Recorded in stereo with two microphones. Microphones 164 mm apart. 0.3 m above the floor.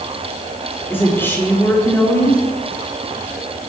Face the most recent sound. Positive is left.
turn(degrees=15)  # may be behind; listen again after turning